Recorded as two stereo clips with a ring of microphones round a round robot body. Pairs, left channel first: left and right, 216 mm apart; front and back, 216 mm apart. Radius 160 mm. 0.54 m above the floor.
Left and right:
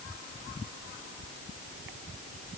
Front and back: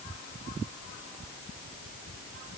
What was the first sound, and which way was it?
Only background noise.